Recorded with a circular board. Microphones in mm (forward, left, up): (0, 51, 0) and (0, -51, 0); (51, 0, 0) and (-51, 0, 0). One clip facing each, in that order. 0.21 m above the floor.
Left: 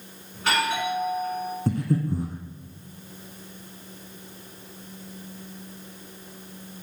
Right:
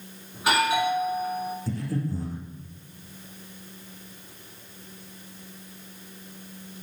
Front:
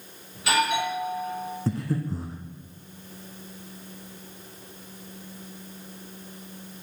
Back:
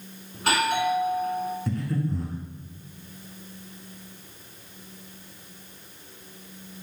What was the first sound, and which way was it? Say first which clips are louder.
A doorbell: right 2 dB, even; 165° right.